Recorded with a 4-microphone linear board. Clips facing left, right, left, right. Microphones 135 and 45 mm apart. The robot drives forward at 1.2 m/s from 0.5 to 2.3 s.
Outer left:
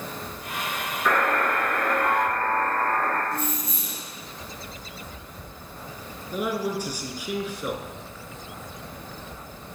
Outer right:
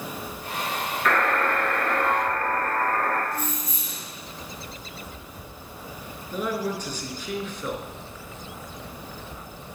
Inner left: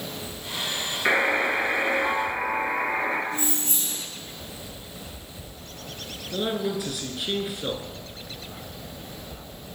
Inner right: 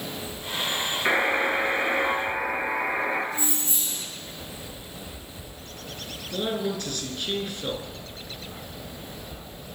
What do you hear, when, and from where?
1.1 s a buzzer: 10° left (ahead or behind), 1.8 m; by 3.2 s 5° left (ahead or behind), 3 m
3.3 s keys jangling: 60° left (ahead or behind), 4 m
6.3 s a man speaking: 10° left (ahead or behind), 1.3 m